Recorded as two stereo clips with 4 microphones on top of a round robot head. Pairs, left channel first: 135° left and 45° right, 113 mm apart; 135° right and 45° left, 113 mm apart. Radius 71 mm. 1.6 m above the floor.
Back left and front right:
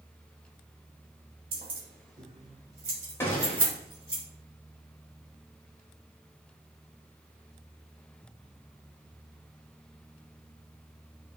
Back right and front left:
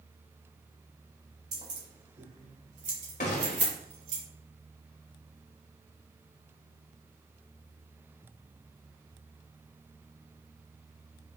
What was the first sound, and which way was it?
Keys jangling, 10° right.